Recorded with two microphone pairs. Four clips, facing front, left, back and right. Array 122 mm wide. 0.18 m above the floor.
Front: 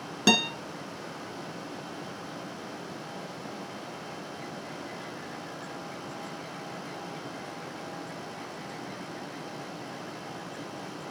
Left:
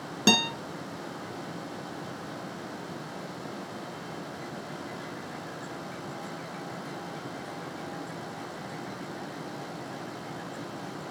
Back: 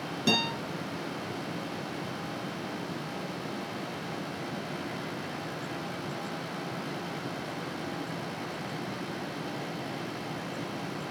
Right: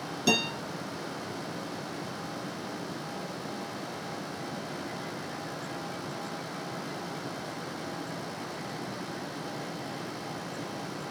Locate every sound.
0.3 s a guitar: 45° left, 2 m